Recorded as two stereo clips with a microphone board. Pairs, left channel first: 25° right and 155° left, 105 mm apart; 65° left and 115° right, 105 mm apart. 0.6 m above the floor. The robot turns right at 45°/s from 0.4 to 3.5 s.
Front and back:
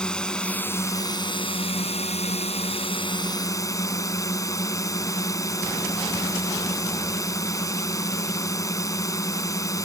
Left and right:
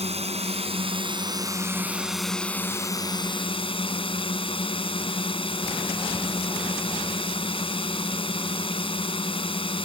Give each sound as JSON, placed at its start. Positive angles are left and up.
{"t": 0.0, "sound": "a drone", "azimuth_deg": -105}